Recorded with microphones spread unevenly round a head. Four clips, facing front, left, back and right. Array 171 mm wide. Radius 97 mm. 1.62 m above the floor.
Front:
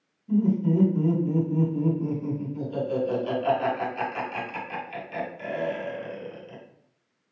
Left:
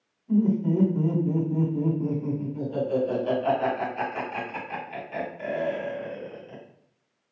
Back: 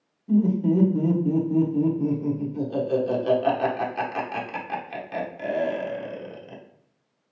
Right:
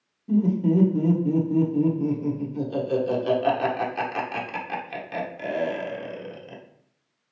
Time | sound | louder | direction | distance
0.3 | laughter | right 2 dB, back 2 dB | 100° right | 1.0 m